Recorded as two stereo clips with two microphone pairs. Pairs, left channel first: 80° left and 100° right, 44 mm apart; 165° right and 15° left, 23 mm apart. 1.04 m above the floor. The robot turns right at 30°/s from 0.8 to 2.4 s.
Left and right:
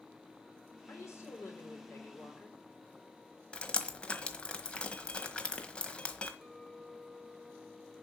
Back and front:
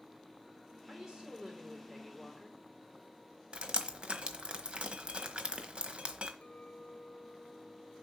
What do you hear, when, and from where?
0.9 s a woman speaking: 70° left, 3.5 m; by 2.6 s 115° left, 3.5 m
3.5 s dripping: 20° left, 1.2 m
6.4 s a clink: straight behind, 1.8 m